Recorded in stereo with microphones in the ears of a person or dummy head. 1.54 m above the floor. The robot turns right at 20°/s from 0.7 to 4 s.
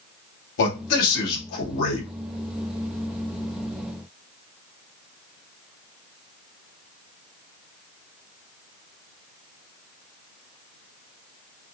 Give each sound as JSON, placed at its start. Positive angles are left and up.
{"t": 0.6, "sound": "a man speaking", "side_deg": 60, "distance_m": 2.0}